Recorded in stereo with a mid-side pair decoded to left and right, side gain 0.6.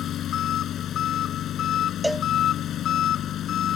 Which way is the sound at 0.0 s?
50° left.